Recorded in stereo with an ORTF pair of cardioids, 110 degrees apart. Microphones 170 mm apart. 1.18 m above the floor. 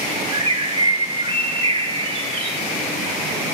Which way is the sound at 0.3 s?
35° right.